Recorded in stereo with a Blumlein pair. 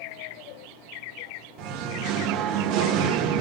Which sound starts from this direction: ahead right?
Singing, at 1.6 s.